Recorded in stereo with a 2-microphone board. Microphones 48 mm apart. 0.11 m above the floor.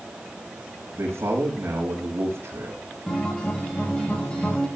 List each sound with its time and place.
0.9 s a man speaking: 75° right (ahead or behind), 6 m
3.1 s a guitar: 20° left (ahead or behind), 9.5 m